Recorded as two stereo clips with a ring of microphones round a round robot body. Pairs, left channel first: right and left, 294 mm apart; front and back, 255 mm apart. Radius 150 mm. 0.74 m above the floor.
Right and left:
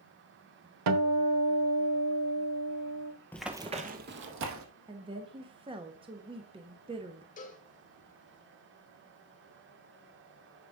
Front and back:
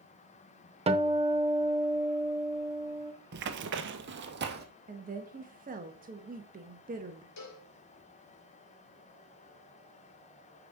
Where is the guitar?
110° left, 1.1 m.